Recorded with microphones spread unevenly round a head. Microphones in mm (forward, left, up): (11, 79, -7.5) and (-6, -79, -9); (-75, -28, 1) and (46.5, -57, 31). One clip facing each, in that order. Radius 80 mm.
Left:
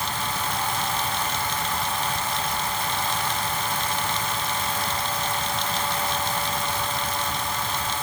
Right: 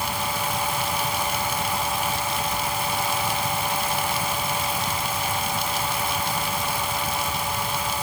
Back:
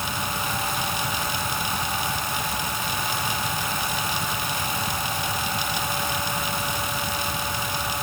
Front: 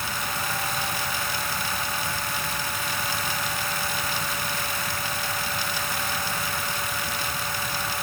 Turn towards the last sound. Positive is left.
No sound to turn to.